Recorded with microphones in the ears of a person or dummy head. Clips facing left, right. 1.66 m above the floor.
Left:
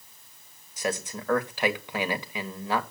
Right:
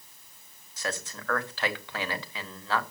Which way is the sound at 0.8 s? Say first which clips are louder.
Left 5 dB; 20° left (ahead or behind).